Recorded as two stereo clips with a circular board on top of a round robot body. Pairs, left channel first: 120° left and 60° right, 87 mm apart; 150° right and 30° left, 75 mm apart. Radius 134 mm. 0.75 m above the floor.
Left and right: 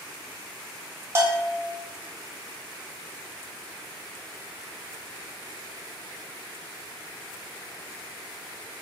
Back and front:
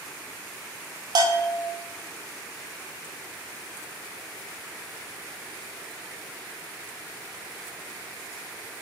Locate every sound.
1.1 s a bell: straight ahead, 0.5 m